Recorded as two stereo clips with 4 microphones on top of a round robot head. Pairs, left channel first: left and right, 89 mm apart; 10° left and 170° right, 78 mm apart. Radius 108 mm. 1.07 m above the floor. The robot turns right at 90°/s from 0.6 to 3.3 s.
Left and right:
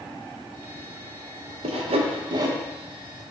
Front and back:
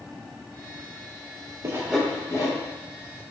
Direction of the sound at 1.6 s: 110° right.